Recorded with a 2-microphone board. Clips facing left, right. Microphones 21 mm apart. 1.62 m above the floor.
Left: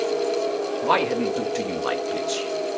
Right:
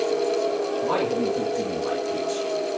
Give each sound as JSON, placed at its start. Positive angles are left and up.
{"t": 0.8, "sound": "a man speaking", "side_deg": 65, "distance_m": 2.0}